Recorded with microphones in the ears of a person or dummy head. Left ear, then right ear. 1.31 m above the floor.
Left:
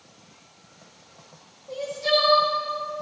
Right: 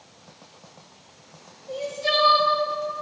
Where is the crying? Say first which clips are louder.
Left 1 dB; 5° right (ahead or behind), 4.5 m.